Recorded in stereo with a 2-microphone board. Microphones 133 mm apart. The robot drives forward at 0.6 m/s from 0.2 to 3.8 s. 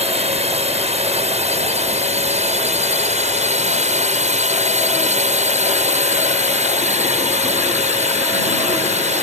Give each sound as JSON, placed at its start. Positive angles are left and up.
{"t": 0.0, "sound": "a drone", "side_deg": -50}